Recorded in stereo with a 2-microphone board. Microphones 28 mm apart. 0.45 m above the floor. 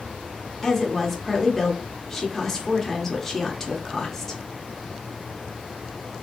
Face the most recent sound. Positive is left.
turn(degrees=15)  # may be behind; listen again after turning